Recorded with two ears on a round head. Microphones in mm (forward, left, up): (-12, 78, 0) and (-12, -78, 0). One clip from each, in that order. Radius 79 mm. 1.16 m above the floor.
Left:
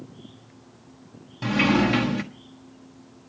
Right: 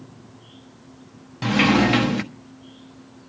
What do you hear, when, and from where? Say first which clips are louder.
1.4 s a sliding door: right 3 dB; 20° right (ahead or behind), 1.1 m